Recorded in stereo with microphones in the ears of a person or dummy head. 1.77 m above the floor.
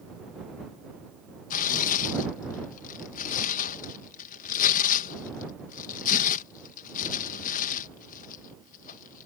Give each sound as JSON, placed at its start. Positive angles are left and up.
{"t": 1.5, "sound": "tearing paper", "side_deg": 45}